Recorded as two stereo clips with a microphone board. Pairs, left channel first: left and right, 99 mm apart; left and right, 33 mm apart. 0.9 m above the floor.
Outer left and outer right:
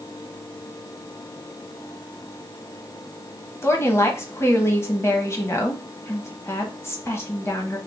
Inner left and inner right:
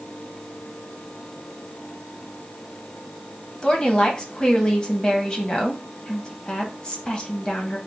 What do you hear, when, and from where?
3.6 s a woman speaking: 25° left (ahead or behind), 0.9 m